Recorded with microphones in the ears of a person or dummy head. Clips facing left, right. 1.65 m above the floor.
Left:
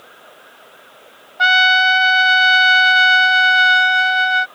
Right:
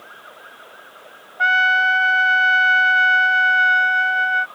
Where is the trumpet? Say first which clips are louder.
Left 4 dB; 60° left (ahead or behind).